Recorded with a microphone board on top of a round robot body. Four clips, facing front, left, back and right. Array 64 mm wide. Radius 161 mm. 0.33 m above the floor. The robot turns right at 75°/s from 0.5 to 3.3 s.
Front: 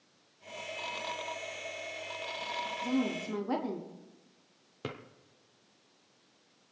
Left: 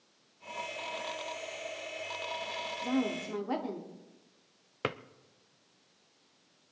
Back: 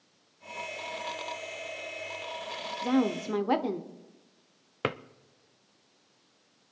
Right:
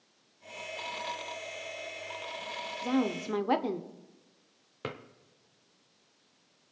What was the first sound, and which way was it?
A woman speaking, 165° right.